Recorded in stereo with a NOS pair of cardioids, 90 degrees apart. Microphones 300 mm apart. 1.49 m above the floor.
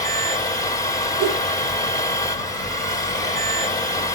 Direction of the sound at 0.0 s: 10° left.